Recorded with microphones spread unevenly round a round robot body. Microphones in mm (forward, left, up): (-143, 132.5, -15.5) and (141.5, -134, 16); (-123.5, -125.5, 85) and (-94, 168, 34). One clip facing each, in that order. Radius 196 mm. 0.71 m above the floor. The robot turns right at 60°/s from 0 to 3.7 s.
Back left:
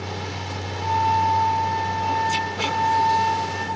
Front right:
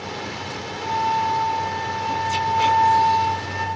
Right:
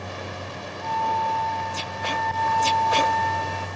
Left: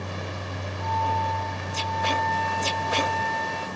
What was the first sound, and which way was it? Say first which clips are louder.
A flute: back left 2 dB, right 1 dB; 125° left.